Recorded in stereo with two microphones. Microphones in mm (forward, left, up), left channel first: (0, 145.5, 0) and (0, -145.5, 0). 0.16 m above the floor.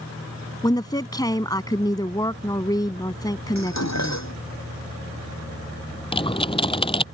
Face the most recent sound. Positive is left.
turn(degrees=20)  # may be behind; listen again after turning